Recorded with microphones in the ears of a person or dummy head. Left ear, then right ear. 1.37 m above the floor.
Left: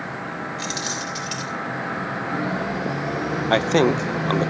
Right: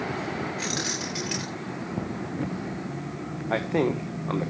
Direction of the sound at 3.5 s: 75° left (ahead or behind).